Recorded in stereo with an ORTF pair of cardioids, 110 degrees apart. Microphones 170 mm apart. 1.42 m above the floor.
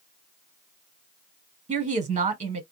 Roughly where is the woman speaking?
Ahead right.